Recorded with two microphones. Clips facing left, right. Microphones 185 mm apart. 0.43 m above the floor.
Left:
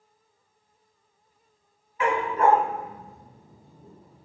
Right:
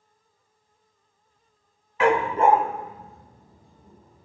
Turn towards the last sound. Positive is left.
turn(degrees=30)  # may be behind; listen again after turning